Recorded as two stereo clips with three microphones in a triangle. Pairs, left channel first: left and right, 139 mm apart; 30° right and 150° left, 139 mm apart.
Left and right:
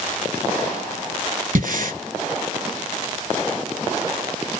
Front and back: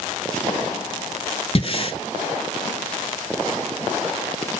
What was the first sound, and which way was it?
Breathing, 80° right.